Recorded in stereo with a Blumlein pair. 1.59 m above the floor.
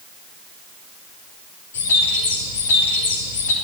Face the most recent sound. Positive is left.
turn(degrees=60)